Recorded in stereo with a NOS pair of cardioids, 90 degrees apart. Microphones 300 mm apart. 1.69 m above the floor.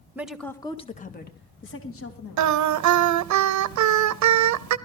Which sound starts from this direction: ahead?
A woman speaking, at 0.1 s.